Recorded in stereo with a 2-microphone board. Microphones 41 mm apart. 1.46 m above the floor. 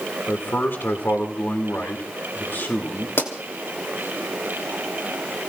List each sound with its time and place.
0.3 s a man speaking: 55° left (ahead or behind), 2.5 m
3.2 s a pop: 65° left (ahead or behind), 3 m